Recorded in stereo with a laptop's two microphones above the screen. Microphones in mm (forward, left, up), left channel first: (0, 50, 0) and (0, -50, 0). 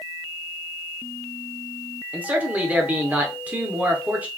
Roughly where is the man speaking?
Centre.